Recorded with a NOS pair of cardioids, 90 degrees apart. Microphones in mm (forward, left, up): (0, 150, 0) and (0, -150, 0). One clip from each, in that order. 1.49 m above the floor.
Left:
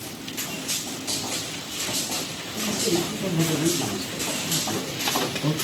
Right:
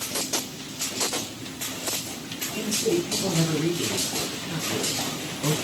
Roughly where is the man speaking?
Ahead.